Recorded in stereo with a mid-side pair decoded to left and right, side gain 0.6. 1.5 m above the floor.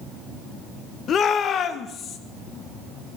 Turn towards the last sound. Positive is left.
turn(degrees=50)